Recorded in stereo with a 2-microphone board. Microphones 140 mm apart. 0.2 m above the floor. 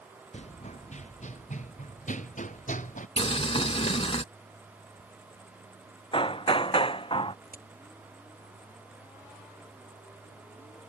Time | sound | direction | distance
0.3 | running footsteps | 50° left (ahead or behind) | ?
3.2 | boiling | 45° left (ahead or behind) | ?
6.1 | hammering | 40° left (ahead or behind) | ?
7.5 | a crack | 75° left (ahead or behind) | ?